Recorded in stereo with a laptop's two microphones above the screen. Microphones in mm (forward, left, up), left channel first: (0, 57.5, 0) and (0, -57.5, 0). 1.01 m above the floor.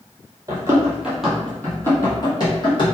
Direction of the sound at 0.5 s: 30° right (ahead or behind).